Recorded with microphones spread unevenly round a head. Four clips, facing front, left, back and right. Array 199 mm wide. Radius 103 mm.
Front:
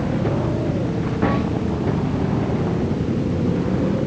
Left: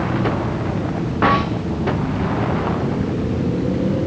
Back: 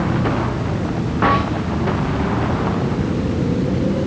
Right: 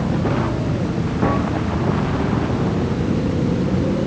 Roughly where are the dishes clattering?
No dishes clattering in this recording.